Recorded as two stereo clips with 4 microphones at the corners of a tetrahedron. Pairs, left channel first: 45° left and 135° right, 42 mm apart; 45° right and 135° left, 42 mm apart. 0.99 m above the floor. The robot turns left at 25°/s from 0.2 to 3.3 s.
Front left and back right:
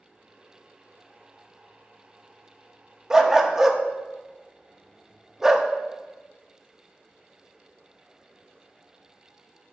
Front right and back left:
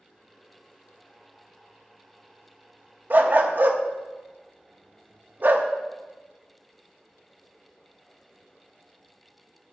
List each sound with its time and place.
3.1 s a dog barking: 155° left, 0.5 m; by 5.7 s 150° left, 0.5 m